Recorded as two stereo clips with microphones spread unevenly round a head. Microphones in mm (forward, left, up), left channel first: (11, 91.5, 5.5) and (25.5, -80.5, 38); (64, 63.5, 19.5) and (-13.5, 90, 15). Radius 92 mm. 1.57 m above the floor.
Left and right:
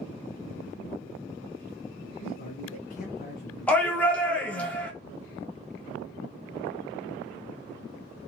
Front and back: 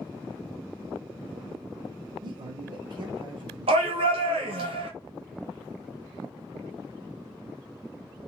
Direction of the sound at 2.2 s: 140° left.